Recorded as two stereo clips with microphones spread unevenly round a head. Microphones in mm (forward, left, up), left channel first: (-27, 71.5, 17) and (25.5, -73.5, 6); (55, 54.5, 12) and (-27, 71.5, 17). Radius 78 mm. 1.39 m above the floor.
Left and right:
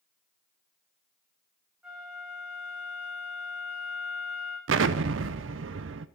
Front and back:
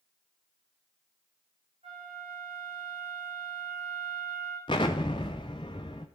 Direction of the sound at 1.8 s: 155° right.